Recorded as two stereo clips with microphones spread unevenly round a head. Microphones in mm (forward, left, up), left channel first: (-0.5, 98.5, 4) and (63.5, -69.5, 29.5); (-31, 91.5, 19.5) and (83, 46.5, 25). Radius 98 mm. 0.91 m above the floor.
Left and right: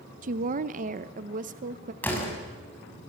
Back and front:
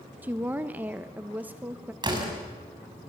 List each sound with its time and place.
0.2 s a woman speaking: 95° right, 0.7 m
2.0 s a door slam: 30° left, 5.5 m